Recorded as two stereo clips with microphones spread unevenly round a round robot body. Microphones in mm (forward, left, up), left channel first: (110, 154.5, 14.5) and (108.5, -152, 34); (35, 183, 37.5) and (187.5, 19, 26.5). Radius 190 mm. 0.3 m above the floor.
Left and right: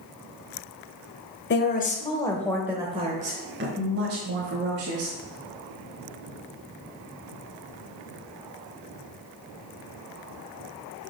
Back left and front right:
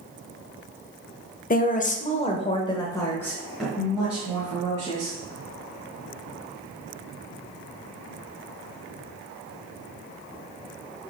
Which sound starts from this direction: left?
A woman speaking, at 1.5 s.